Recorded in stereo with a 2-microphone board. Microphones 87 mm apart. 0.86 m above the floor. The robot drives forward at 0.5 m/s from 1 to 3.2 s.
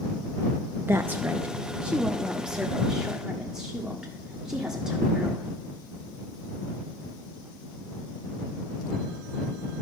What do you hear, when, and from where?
0.8 s a woman speaking: 25° right (ahead or behind), 0.5 m; by 5.5 s 10° right (ahead or behind), 1.5 m